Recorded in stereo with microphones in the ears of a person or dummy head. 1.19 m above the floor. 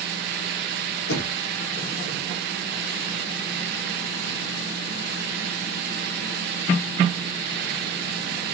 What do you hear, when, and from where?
1.1 s knocking: 80° left, 1.0 m